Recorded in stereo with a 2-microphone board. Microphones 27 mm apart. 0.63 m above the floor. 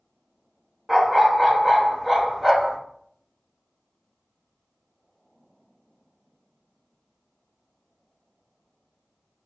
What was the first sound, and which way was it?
A dog barking, 15° right (ahead or behind).